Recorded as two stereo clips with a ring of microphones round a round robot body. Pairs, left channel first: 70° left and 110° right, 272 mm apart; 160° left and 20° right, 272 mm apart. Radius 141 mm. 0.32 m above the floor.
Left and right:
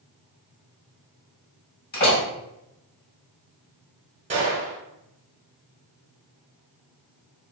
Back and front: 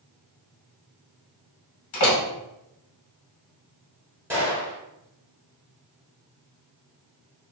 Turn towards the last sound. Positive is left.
turn(degrees=-95)